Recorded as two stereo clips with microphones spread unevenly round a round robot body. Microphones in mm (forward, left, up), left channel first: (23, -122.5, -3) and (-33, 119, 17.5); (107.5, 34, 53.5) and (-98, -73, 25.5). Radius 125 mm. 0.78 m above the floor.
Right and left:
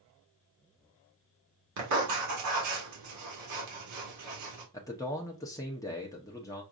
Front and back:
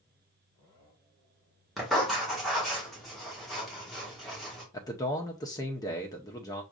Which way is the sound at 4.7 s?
40° right.